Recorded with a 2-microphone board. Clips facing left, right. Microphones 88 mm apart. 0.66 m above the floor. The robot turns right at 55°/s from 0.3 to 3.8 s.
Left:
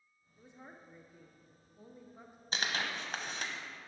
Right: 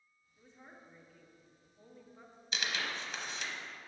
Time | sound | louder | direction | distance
0.4 | a woman speaking | left 3 dB | 15° left (ahead or behind) | 0.6 m
2.5 | tearing paper | left 2 dB | 40° left (ahead or behind) | 0.6 m